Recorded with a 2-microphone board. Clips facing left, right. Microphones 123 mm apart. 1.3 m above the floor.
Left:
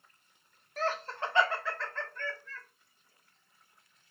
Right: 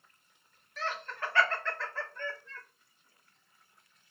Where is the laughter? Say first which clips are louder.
Left 4 dB; 45° left (ahead or behind), 0.8 m; by 2.6 s 25° right (ahead or behind), 1.0 m.